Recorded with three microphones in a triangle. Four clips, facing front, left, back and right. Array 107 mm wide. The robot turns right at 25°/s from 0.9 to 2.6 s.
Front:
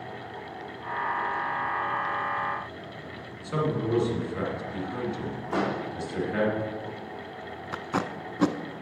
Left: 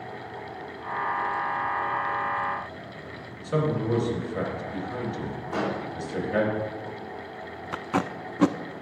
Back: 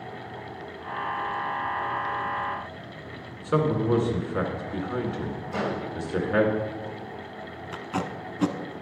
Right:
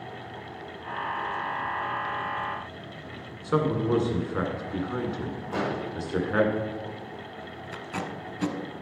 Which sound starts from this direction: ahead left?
Tape being pulled, at 7.7 s.